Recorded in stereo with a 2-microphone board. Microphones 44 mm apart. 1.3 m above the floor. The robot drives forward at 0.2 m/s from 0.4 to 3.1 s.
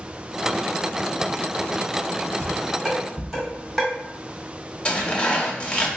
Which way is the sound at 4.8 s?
25° left (ahead or behind).